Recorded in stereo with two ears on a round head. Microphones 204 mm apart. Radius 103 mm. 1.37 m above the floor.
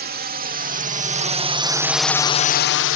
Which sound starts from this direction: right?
A drone, at 0.0 s.